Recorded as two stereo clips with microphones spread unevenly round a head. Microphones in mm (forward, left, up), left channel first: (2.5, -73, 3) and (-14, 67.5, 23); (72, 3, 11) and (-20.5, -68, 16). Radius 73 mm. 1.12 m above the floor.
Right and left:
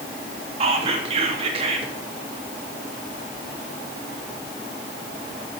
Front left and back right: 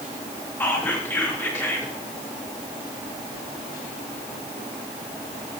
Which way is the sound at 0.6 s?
90° left.